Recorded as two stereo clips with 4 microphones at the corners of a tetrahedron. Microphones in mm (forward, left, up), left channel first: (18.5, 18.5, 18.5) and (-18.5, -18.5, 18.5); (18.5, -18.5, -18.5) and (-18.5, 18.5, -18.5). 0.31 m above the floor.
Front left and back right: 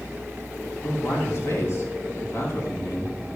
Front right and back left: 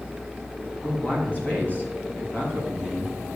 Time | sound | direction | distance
0.8 | a man speaking | 10° left | 3 m